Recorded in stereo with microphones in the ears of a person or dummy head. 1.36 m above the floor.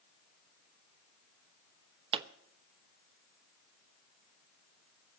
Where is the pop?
30° right (ahead or behind), 0.9 m.